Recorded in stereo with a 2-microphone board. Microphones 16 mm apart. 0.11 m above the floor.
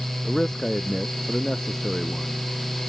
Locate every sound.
0.2 s a man speaking: 30° left (ahead or behind); by 2.4 s 40° left (ahead or behind)